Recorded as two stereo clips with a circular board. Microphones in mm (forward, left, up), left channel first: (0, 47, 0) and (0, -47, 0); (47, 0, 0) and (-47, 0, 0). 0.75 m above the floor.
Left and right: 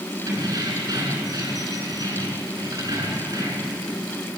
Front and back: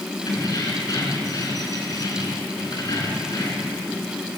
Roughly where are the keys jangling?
Ahead right.